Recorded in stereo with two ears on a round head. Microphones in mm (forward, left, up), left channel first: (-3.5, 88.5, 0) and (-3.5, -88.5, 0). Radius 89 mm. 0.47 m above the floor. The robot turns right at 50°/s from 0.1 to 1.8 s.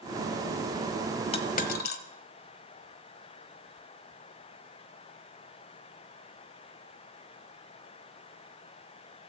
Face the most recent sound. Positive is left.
turn(degrees=50)  # may be behind; listen again after turning